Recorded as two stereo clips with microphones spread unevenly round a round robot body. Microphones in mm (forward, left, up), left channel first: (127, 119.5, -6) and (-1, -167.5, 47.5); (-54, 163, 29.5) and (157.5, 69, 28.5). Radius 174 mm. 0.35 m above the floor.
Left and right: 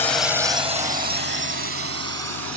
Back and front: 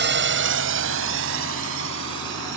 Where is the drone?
10° right; by 2.6 s 75° right.